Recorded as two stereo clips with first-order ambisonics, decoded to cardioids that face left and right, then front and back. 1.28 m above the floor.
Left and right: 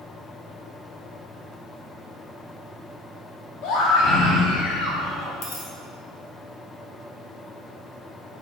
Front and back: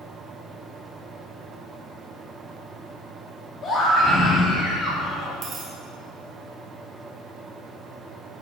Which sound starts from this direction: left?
A scream, at 3.6 s.